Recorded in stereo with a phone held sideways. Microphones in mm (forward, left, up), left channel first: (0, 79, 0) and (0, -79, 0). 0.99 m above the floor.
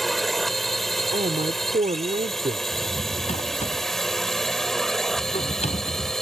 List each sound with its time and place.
0.0 s a drone: centre (ahead or behind)
1.1 s a man speaking: 50° right (ahead or behind)
2.7 s a drawer: 45° left (ahead or behind)